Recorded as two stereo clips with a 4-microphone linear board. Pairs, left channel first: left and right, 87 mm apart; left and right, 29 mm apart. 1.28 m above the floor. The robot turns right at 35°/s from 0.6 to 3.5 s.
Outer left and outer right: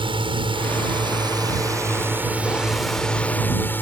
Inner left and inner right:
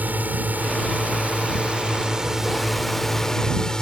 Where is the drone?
80° right; by 3.8 s 20° left.